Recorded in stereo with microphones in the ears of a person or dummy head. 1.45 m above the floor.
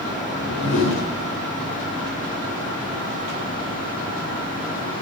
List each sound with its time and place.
0.2 s a whoosh: 55° left (ahead or behind), 3 m